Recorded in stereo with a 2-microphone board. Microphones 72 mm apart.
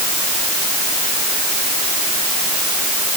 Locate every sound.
Only background noise.